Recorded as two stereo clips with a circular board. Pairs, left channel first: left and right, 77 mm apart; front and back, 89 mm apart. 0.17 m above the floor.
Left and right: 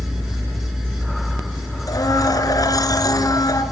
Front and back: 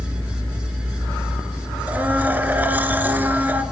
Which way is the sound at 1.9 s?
110° left.